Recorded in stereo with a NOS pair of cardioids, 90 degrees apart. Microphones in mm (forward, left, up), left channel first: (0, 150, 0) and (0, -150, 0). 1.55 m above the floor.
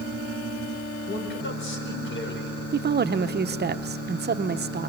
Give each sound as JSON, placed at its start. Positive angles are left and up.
{"t": 1.1, "sound": "a man speaking", "azimuth_deg": 40, "distance_m": 5.0}
{"t": 2.7, "sound": "a woman speaking", "azimuth_deg": -35, "distance_m": 0.9}